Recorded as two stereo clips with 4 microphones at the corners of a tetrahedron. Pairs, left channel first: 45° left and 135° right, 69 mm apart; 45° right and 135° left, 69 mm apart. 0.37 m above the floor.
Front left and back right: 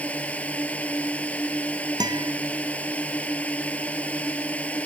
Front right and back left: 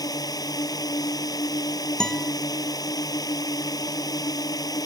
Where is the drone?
25° right.